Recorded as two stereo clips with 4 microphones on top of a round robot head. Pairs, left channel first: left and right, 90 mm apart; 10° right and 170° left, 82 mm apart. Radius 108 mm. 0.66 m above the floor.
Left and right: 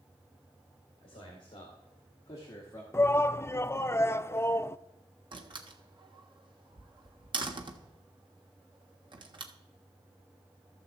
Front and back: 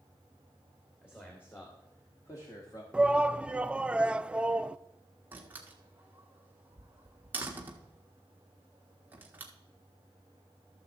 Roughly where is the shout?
Left.